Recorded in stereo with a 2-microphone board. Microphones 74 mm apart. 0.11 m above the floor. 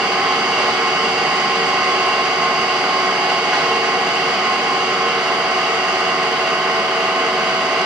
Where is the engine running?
10° right (ahead or behind), 3 m.